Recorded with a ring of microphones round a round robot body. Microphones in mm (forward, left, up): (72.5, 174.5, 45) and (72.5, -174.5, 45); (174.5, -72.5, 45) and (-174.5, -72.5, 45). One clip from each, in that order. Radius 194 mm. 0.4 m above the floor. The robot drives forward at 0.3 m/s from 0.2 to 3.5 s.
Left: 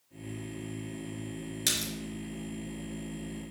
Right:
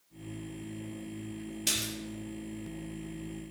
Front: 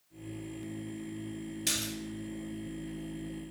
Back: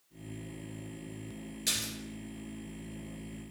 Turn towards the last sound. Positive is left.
turn(degrees=100)